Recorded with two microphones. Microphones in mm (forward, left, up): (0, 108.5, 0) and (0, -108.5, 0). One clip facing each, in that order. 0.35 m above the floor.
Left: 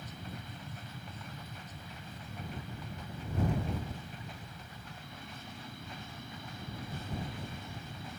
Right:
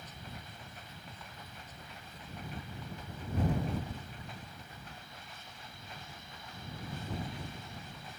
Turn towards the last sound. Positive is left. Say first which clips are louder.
# left 4 dB
turn(degrees=60)  # may be behind; listen again after turning